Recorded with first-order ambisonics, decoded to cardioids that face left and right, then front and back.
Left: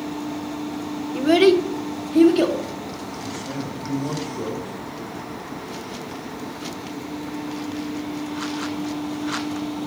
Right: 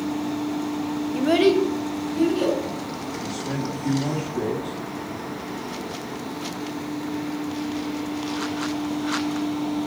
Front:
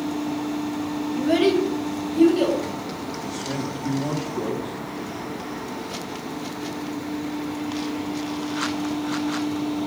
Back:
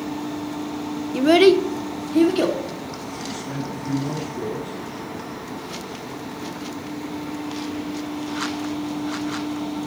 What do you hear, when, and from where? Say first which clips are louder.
1.1 s a child speaking: left 3 dB, back 6 dB; straight behind, 0.7 m; by 2.6 s 150° left, 2 m
3.2 s a man speaking: right 1 dB, front 1 dB; 80° right, 3 m